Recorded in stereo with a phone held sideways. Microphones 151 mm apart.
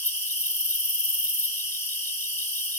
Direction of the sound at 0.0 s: 15° left (ahead or behind).